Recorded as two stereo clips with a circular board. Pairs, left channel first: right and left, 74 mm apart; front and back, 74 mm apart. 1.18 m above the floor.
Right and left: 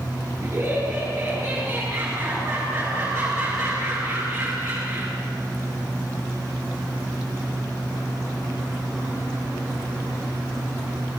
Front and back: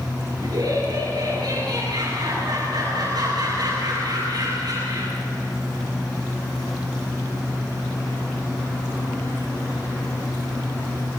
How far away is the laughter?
About 10 m.